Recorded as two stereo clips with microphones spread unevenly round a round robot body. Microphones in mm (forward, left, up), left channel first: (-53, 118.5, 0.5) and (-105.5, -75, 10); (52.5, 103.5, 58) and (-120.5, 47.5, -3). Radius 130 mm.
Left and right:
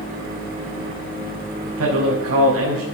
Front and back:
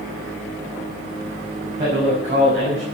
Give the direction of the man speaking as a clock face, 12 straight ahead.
3 o'clock.